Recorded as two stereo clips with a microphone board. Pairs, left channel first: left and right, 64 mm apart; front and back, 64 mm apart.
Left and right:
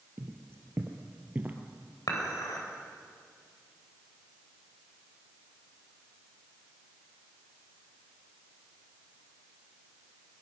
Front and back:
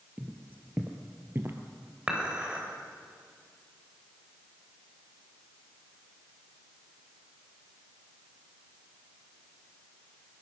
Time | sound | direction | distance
0.2 | footsteps | 120° right | 2 m
2.1 | dishes clattering | 105° left | 3.5 m